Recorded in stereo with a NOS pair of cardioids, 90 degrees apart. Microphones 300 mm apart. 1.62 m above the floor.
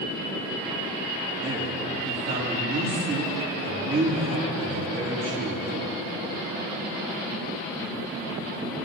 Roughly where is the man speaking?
Ahead right.